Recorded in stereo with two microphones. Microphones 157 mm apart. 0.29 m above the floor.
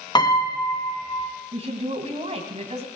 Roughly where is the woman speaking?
Right.